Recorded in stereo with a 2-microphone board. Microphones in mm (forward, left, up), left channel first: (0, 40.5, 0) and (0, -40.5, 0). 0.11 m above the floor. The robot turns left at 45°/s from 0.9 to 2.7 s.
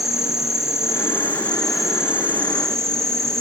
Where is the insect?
40° left, 1.6 m; by 3.4 s 40° right, 1.6 m.